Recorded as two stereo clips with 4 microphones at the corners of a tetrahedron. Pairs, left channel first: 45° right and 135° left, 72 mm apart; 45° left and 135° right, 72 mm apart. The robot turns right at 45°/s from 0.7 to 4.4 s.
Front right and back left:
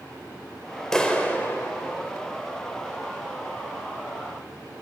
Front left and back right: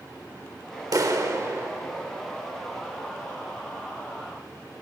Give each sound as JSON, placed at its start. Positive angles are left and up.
{"t": 0.9, "sound": "a clap", "azimuth_deg": -125, "distance_m": 1.2}